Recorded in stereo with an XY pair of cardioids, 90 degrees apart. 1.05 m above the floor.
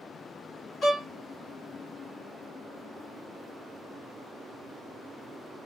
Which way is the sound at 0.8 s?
65° left.